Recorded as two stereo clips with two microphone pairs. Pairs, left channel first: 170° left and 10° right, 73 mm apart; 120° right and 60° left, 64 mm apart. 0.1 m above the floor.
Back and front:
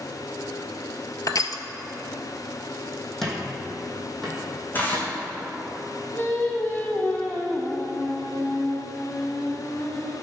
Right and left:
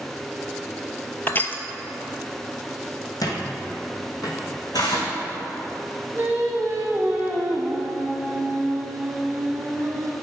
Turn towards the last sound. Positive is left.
turn(degrees=110)